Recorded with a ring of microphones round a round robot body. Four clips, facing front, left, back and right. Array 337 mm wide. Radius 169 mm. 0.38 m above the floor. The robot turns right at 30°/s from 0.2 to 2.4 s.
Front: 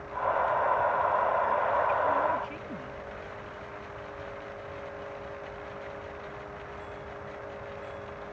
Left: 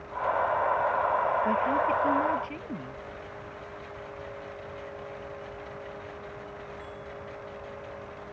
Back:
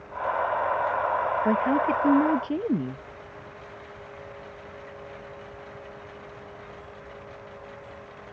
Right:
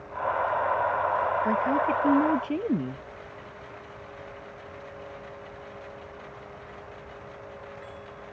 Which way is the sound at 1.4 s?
170° right.